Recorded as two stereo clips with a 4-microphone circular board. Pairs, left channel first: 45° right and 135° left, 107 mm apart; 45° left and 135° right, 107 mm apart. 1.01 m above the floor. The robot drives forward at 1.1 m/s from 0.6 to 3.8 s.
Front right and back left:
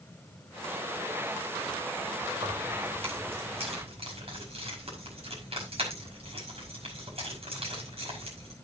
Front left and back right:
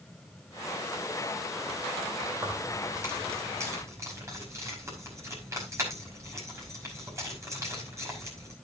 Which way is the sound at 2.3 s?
155° left.